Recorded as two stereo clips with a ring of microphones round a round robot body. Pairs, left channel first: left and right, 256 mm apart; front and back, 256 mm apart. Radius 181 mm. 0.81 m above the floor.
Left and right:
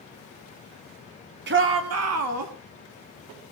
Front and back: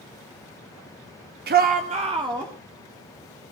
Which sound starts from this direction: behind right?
A shout, at 1.5 s.